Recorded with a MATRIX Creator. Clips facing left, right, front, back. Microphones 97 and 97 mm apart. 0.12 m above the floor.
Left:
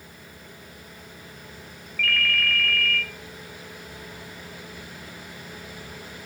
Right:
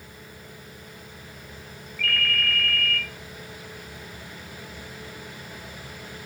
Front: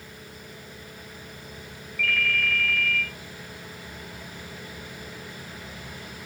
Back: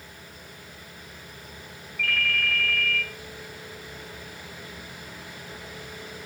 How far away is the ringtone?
About 1.4 m.